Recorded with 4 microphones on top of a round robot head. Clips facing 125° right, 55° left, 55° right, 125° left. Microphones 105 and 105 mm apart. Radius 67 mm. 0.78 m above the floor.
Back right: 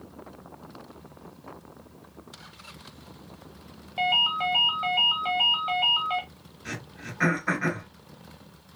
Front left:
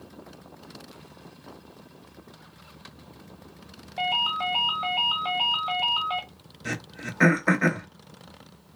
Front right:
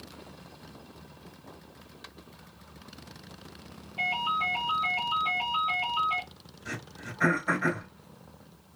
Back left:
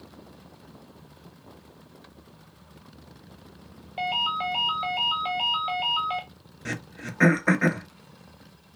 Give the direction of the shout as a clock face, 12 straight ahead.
I don't hear a shout.